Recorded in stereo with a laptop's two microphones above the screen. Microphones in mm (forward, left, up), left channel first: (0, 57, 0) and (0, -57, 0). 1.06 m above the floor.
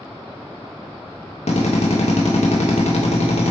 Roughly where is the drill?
Left.